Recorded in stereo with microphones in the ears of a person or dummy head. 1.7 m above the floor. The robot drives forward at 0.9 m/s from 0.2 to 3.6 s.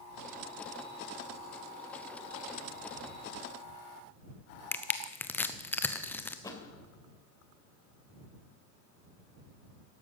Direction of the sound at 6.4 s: 20° left (ahead or behind).